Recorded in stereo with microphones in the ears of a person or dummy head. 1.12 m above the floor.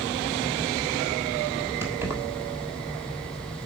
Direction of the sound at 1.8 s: 10° right (ahead or behind).